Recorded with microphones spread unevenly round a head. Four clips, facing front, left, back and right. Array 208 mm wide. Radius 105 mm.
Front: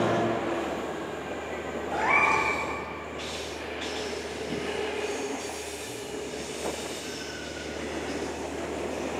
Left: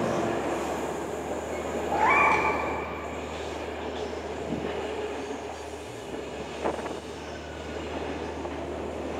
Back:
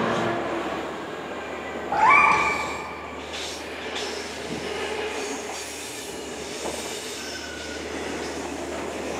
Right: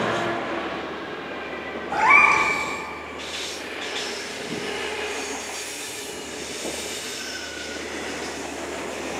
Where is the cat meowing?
165° left, 1.2 m.